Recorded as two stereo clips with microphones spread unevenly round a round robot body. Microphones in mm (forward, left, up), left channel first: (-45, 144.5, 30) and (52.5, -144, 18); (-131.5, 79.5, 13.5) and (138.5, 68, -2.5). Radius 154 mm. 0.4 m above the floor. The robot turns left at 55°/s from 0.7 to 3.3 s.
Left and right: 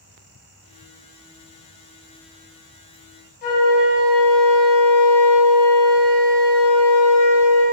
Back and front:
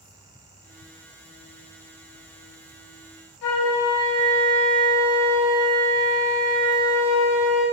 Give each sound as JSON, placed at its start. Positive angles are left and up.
{"t": 3.4, "sound": "a flute", "azimuth_deg": 165, "distance_m": 2.5}